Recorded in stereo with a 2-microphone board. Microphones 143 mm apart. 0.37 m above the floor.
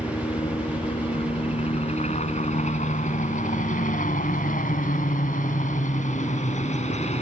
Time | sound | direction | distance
0.0 | a helicopter | 35° left (ahead or behind) | ?